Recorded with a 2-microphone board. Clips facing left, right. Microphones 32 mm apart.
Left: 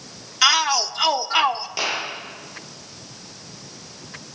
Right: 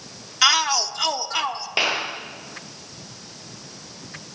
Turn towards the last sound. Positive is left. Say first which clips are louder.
# right 6 dB
turn(degrees=-40)  # may be behind; listen again after turning